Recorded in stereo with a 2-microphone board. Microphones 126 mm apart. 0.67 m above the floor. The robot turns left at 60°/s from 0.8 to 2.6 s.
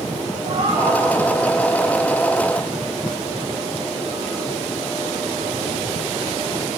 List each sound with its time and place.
0.5 s a cat meowing: 65° right (ahead or behind), 8 m; by 1.0 s 80° right, 8 m